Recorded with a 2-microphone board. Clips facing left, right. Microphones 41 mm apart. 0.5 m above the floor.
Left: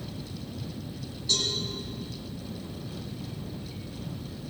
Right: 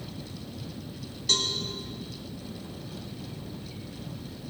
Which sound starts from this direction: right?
A cowbell, at 1.3 s.